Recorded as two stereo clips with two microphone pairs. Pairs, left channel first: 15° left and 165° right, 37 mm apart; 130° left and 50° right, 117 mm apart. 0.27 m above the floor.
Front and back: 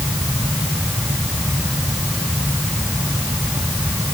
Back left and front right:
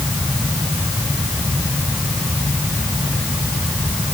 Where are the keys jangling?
I don't hear keys jangling.